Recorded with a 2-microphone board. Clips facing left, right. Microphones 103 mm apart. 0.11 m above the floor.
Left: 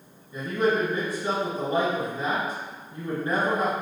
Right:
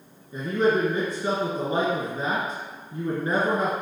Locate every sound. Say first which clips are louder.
0.3 s a man speaking: right 2 dB; 30° right (ahead or behind), 1.4 m